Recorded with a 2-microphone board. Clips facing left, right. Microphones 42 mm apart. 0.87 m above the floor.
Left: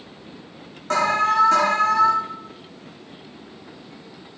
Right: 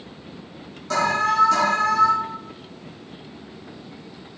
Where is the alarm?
40° left (ahead or behind), 2.5 m.